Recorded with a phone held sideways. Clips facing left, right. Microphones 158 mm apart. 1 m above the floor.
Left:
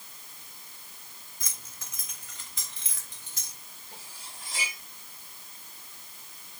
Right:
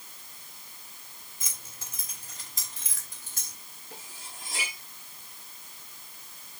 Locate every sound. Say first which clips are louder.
1.4 s keys jangling: right 1 dB; 25° right (ahead or behind), 3 m; by 3.6 s 55° right (ahead or behind), 5.5 m
3.9 s cutlery clinking: right 2 dB; 50° right (ahead or behind), 8.5 m